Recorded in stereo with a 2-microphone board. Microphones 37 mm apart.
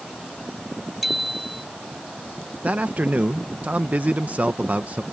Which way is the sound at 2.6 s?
50° right (ahead or behind).